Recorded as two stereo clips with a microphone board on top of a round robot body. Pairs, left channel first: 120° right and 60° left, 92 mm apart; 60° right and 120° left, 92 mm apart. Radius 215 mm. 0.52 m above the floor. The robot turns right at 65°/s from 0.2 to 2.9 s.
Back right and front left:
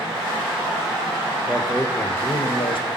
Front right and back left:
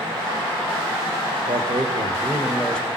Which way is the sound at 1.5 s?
135° left.